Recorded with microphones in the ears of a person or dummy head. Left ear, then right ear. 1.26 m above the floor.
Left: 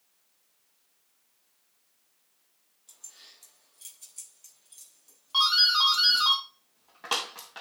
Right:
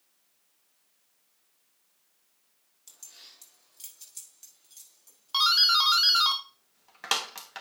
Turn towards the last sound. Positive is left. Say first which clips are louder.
# even
turn(degrees=-40)  # may be behind; listen again after turning